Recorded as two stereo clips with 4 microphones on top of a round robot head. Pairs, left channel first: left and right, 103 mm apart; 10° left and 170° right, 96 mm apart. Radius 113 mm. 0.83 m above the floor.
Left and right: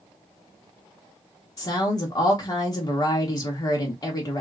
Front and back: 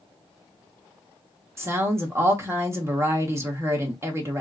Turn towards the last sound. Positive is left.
turn(degrees=135)